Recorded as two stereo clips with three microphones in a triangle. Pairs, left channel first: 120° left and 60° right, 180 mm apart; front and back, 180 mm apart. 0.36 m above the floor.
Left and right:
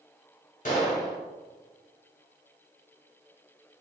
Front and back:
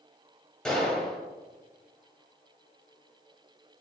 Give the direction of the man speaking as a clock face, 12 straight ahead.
No man speaking in this recording.